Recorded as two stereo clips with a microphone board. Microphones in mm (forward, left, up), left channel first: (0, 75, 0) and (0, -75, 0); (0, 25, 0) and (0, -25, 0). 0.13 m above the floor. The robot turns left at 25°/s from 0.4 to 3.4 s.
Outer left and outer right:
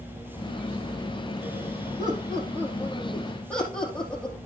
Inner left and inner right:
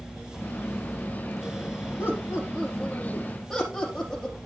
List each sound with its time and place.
2.0 s laughter: 25° right (ahead or behind), 4 m; by 4.4 s 10° left (ahead or behind), 4 m